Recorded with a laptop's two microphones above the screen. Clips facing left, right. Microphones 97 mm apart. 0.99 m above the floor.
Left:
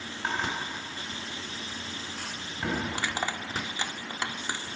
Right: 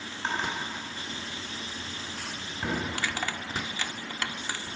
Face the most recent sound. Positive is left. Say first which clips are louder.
# left 1 dB
turn(degrees=20)  # may be behind; listen again after turning